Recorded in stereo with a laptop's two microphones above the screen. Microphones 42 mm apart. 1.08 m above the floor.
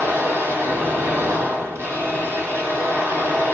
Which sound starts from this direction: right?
A machine running, at 0.0 s.